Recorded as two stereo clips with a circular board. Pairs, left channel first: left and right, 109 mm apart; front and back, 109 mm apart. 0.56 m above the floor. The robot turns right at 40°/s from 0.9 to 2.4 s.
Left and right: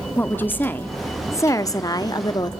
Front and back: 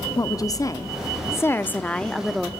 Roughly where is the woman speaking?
Ahead left.